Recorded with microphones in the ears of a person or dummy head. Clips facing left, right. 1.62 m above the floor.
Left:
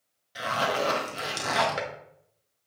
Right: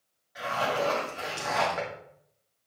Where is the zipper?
45° left (ahead or behind), 1.6 m.